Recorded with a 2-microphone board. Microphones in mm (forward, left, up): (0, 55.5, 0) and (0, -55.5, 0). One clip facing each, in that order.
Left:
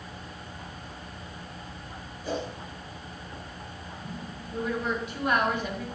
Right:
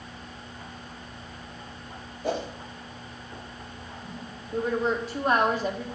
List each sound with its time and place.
2.2 s a whoosh: 60° right (ahead or behind), 1.9 m
4.5 s a woman speaking: 35° right (ahead or behind), 1.6 m